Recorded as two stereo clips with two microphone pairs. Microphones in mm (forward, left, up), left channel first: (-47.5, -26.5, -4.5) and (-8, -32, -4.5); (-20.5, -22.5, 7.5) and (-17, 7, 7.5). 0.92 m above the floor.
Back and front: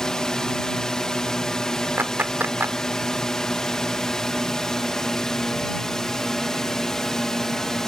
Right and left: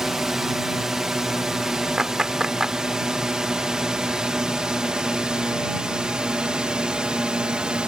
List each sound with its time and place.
0.0 s a drone: 140° left; by 7.9 s 105° left
2.0 s a clap: 15° left